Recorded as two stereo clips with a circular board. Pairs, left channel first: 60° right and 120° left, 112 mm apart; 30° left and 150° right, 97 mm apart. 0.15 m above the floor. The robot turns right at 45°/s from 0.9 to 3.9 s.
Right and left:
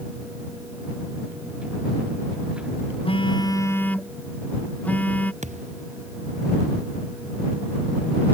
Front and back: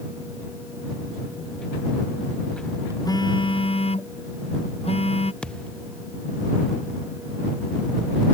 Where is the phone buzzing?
20° right; by 5.3 s 15° left.